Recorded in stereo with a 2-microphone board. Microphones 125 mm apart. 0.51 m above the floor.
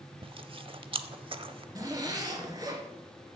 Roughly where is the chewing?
Right.